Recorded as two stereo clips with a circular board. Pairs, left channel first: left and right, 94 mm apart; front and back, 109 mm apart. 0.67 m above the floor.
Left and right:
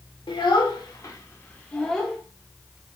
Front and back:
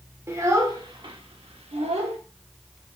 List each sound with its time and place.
0.3 s a child speaking: 115° left, 1.1 m; by 2.2 s straight behind, 1.1 m